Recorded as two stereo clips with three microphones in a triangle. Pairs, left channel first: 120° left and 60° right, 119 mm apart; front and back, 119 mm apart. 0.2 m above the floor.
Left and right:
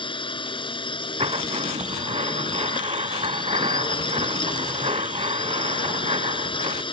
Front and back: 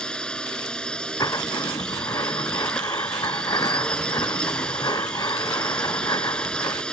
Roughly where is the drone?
Left.